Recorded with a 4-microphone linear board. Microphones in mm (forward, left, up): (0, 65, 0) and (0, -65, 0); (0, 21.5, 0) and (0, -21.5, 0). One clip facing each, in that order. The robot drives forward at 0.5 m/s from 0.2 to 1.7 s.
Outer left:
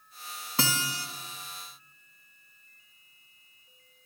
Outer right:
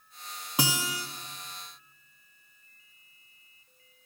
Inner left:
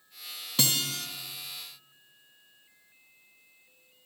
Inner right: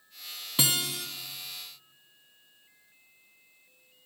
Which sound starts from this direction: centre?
A guitar, at 0.6 s.